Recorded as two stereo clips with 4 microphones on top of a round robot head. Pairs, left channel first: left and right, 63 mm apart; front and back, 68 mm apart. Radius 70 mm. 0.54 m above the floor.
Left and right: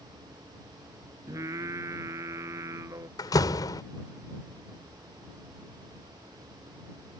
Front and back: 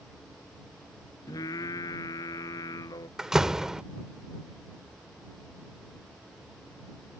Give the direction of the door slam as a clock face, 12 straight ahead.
9 o'clock.